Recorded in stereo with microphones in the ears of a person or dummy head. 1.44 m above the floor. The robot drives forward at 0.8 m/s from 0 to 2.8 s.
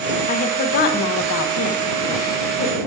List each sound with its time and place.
0.3 s a woman speaking: 45° left (ahead or behind), 1.5 m